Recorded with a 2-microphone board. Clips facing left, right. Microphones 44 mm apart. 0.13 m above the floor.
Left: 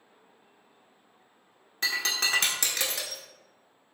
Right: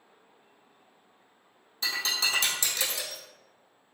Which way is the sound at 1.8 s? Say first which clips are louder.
Left 1 dB; 55° left (ahead or behind).